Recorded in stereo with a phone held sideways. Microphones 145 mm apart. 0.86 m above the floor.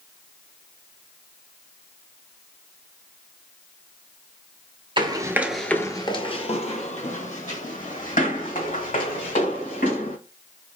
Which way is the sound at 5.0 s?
35° right (ahead or behind).